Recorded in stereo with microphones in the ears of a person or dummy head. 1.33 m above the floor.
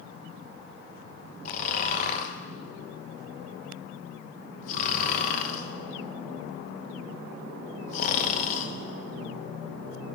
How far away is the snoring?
About 1.1 m.